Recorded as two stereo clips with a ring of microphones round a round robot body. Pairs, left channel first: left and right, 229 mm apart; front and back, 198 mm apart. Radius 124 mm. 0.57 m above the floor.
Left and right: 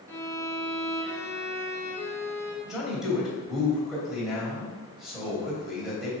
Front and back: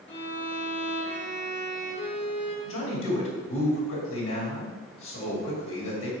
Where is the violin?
10° left, 1.9 m.